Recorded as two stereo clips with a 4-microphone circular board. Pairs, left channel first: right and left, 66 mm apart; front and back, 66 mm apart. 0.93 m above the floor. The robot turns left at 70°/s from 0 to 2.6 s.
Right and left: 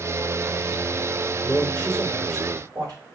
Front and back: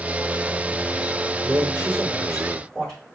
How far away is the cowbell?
I don't hear a cowbell.